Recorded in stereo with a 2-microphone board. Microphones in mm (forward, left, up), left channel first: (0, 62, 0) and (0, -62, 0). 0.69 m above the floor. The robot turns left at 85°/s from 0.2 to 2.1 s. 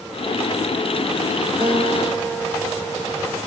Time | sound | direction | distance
1.6 | a guitar | 135° right | 0.9 m